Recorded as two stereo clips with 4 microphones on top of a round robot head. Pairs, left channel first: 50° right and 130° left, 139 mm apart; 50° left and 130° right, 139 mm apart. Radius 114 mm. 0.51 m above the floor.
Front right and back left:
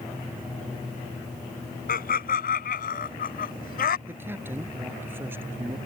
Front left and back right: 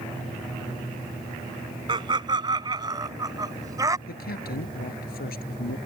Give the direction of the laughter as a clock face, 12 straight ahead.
2 o'clock.